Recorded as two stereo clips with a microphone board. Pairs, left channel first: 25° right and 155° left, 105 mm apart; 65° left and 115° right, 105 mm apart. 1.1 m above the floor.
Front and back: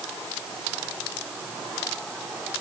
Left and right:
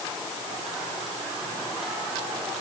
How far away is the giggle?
I don't hear a giggle.